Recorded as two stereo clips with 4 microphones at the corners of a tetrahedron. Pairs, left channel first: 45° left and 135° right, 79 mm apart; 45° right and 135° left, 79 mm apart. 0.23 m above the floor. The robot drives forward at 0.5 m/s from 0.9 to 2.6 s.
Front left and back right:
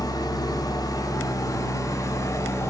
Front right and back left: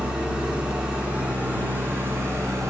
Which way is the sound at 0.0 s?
60° left.